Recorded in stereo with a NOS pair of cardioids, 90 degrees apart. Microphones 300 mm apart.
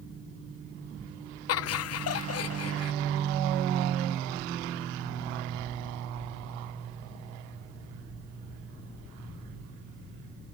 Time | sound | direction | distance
1.5 | laughter | 55° left | 0.7 m